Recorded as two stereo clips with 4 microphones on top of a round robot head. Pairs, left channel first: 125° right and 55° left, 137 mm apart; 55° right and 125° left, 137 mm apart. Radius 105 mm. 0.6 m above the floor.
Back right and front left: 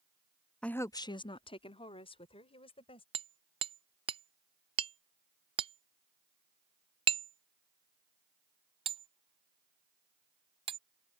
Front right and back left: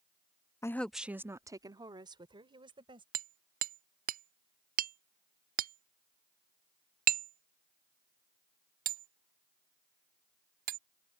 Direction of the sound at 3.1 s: 105° left.